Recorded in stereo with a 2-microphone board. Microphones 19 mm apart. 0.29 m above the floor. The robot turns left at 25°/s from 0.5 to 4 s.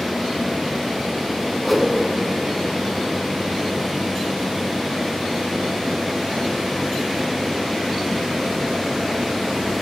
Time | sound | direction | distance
1.6 | a whoosh | 5° left (ahead or behind) | 3.5 m